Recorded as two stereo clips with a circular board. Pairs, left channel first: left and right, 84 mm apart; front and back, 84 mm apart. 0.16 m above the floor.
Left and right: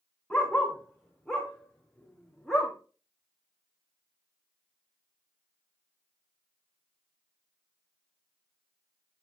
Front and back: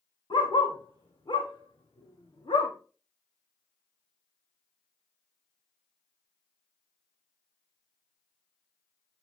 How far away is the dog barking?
About 4.5 m.